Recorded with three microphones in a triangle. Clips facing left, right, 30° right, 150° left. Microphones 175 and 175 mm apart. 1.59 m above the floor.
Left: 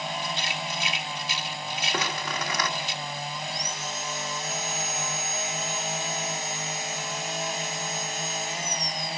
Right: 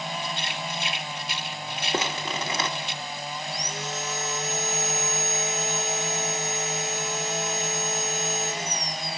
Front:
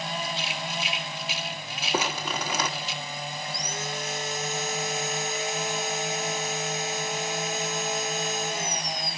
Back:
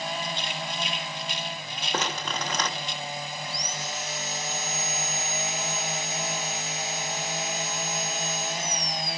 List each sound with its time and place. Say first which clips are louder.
0.2 s a rattle: even, even; 115° right, 2.0 m
1.9 s crumpling: right 3 dB, front 2 dB; 100° right, 1.0 m
3.5 s sawing: right 2 dB, front 2 dB; 70° right, 0.8 m